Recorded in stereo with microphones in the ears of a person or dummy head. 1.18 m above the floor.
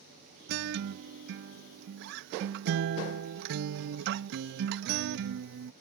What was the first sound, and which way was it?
A guitar, 60° right (ahead or behind).